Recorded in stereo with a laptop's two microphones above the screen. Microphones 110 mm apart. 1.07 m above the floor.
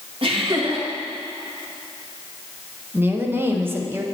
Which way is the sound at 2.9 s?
20° right (ahead or behind).